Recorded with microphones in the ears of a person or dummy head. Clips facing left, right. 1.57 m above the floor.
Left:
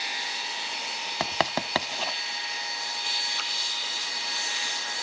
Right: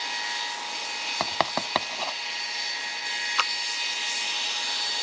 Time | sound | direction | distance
1.2 | writing | 10° left (ahead or behind) | ?
3.4 | a clap | 80° right | ?